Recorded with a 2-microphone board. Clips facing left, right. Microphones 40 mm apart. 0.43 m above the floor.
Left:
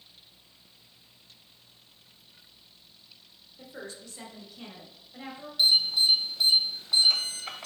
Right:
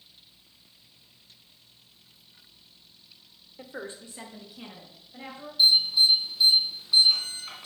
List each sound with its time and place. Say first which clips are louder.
3.6 s a woman speaking: right 3 dB; 35° right (ahead or behind), 1.1 m; by 5.5 s 5° left (ahead or behind), 2 m
5.6 s an alarm: right 3 dB; 65° left (ahead or behind), 1.4 m